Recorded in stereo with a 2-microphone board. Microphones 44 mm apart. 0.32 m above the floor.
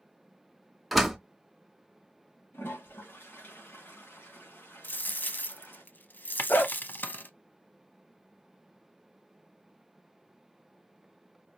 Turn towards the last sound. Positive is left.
turn(degrees=50)  # may be behind; listen again after turning